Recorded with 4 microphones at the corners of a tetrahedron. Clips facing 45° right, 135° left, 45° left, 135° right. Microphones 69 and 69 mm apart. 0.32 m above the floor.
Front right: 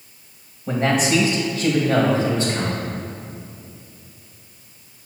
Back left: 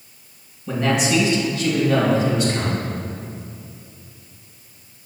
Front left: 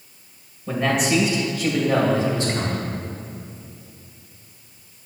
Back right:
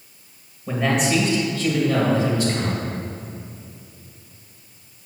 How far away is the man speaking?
About 1.5 m.